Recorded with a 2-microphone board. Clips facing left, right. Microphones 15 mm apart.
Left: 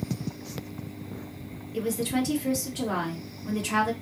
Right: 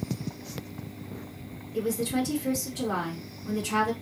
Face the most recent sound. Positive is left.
turn(degrees=40)  # may be behind; listen again after turning